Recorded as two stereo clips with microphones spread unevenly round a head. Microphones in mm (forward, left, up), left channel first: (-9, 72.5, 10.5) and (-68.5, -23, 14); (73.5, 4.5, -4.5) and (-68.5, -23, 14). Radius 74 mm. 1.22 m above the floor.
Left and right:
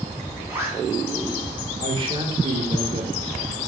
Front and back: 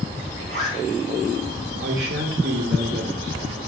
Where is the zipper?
170° left, 3 m.